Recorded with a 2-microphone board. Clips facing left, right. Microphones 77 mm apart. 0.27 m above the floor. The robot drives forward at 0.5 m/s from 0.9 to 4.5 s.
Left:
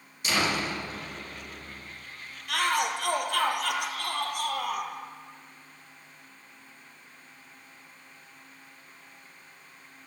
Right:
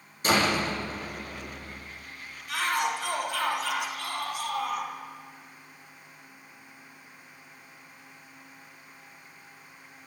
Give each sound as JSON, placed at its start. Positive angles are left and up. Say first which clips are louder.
{"t": 0.2, "sound": "a door slam", "louder": "right 3 dB", "side_deg": -40, "distance_m": 9.5}
{"t": 2.5, "sound": "a shout", "louder": "left 1 dB", "side_deg": 65, "distance_m": 6.0}